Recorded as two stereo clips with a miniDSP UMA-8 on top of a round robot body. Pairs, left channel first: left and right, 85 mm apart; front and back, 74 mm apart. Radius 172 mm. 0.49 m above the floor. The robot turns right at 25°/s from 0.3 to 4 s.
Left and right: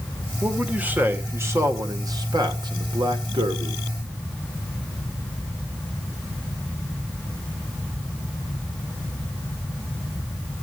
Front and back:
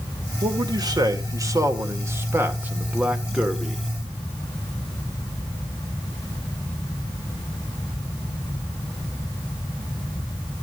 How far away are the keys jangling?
I don't hear keys jangling.